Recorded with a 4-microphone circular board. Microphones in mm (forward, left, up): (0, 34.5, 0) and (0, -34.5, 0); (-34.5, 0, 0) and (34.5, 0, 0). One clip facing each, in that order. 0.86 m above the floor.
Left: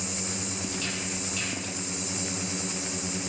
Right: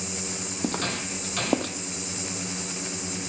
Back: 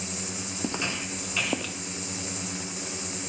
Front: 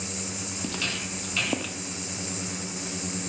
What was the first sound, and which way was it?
Footsteps, 120° right.